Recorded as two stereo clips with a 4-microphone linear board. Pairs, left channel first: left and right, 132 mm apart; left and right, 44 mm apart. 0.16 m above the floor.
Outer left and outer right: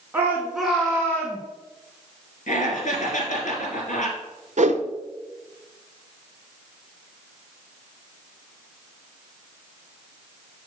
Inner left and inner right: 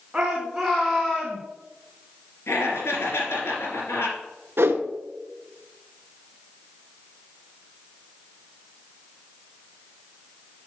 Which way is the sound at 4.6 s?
60° right (ahead or behind).